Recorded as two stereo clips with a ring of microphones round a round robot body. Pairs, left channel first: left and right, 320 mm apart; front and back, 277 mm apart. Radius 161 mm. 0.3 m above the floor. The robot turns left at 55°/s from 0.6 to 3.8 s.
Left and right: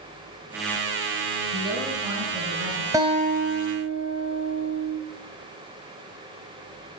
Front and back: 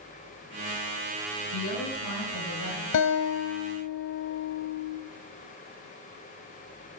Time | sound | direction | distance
1.5 | a woman speaking | 20° left | 3 m
2.9 | a guitar | 10° right | 1.4 m